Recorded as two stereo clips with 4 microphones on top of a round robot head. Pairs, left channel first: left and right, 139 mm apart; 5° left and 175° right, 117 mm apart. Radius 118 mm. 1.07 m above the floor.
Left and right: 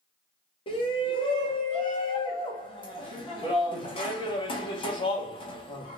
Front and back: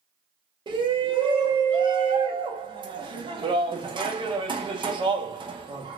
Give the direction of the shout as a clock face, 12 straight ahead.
7 o'clock.